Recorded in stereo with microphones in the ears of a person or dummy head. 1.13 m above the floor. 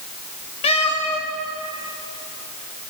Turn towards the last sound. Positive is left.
turn(degrees=40)  # may be behind; listen again after turning